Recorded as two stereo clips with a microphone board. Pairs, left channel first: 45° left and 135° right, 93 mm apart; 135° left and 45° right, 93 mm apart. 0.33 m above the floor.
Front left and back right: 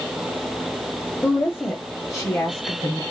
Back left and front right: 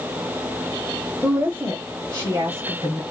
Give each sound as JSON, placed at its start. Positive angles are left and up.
{"t": 1.2, "sound": "a woman speaking", "azimuth_deg": 0, "distance_m": 1.0}